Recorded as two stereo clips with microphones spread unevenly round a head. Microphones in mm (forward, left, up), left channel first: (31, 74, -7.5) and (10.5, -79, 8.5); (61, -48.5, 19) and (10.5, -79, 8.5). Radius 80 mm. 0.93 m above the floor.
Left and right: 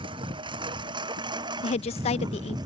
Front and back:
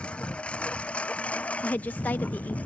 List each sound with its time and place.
0.0 s a lawn mower: 40° right; by 2.7 s 35° right
1.6 s a woman speaking: 100° left